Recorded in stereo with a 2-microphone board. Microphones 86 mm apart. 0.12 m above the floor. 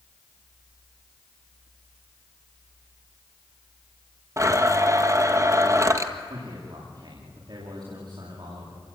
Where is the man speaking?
60° right (ahead or behind), 9.5 m.